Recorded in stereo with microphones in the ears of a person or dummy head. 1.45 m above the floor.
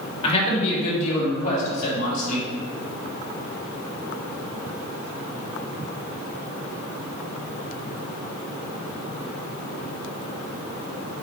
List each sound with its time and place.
0.2 s a man speaking: 35° left (ahead or behind), 2.5 m; by 2.5 s 55° left (ahead or behind), 4.5 m